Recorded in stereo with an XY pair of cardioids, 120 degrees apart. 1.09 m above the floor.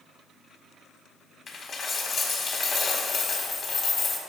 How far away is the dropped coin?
About 1.2 m.